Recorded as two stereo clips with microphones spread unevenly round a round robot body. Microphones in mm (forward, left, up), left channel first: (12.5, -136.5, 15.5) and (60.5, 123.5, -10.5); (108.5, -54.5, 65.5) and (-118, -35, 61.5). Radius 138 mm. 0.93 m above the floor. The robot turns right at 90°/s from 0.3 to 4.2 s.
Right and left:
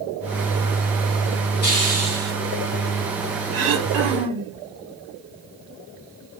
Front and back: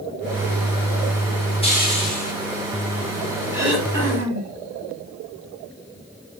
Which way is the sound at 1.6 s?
70° right.